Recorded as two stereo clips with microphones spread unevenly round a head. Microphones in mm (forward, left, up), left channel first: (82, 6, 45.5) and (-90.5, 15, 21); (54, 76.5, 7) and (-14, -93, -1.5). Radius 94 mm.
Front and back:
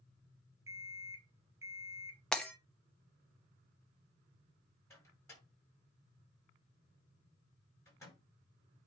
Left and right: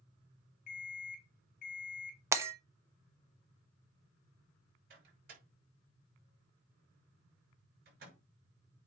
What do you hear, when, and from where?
0.7 s an alarm clock: 100° left, 2 m
2.3 s breaking glass: 60° right, 1.0 m
4.9 s a microwave: 75° right, 6 m